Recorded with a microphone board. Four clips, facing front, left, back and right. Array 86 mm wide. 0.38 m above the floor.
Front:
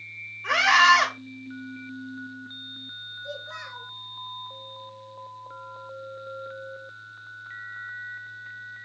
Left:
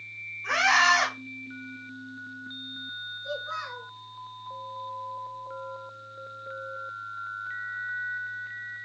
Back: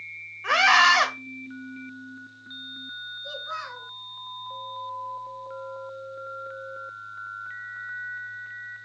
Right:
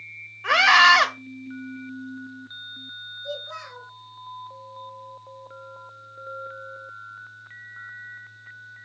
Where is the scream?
110° right, 1.3 m.